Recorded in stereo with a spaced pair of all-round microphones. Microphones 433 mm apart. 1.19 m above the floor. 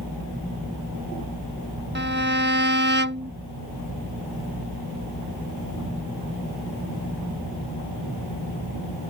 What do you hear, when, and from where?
1.9 s a violin: 25° right (ahead or behind)